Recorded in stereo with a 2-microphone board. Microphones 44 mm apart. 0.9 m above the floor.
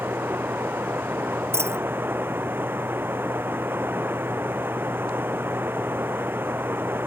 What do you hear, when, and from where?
0.0 s running water: 50° right (ahead or behind)
1.5 s a dropped coin: 75° right (ahead or behind)